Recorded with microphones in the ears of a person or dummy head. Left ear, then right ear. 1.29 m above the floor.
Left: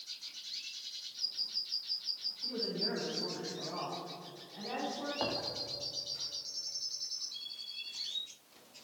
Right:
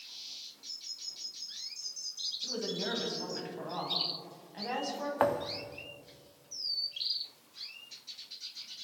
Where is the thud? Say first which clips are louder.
Right 8 dB; 50° right (ahead or behind), 1.1 m.